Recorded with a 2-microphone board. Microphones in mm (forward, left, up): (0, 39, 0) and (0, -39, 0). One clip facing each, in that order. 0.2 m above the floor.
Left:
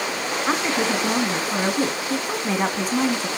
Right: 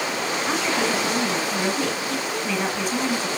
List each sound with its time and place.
0.5 s a woman speaking: 35° left (ahead or behind), 1.9 m